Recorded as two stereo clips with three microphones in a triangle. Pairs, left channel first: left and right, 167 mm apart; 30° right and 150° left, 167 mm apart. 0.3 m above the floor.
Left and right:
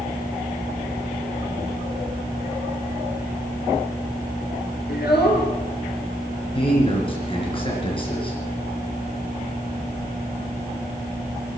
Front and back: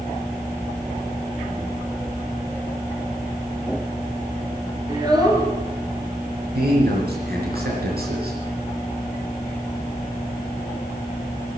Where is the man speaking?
145° left, 4 m.